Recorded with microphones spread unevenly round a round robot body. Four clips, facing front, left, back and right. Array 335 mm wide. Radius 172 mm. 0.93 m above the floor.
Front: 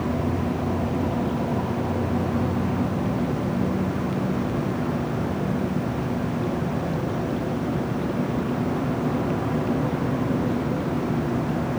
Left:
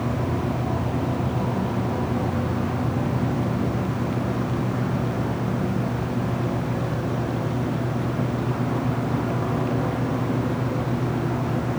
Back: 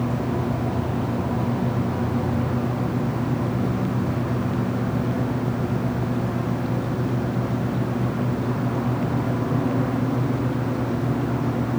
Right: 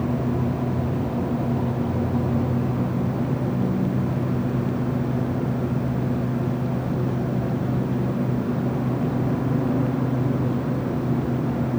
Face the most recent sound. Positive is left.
No sound to turn to.